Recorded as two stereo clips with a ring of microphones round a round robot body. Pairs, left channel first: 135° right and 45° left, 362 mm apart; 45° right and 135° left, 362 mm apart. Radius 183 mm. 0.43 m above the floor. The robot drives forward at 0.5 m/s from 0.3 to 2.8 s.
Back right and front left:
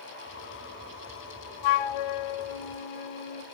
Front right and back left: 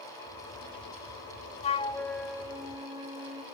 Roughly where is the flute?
Behind right.